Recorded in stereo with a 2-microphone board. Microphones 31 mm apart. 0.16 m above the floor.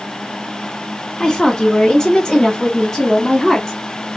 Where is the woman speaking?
20° left (ahead or behind), 1.9 m; by 4.2 s 15° left (ahead or behind), 1.8 m.